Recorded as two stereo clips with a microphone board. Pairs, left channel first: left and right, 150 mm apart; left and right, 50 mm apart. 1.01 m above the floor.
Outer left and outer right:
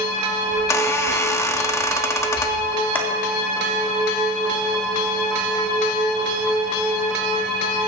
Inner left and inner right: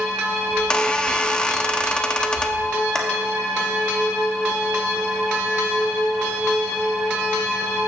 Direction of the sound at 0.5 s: 15° left (ahead or behind).